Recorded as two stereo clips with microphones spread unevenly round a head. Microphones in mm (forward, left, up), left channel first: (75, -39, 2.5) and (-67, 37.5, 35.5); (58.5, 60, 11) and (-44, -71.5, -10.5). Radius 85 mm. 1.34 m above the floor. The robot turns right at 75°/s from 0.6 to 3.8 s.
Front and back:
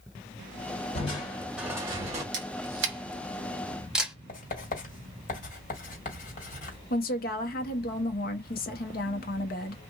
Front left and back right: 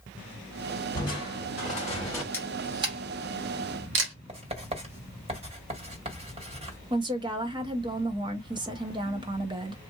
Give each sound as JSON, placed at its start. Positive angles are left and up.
{"t": 0.9, "sound": "crushing", "azimuth_deg": 25, "distance_m": 1.6}
{"t": 2.3, "sound": "a camera shutter", "azimuth_deg": 130, "distance_m": 1.2}
{"t": 4.3, "sound": "writing", "azimuth_deg": -75, "distance_m": 1.7}
{"t": 6.9, "sound": "a woman speaking", "azimuth_deg": -65, "distance_m": 1.0}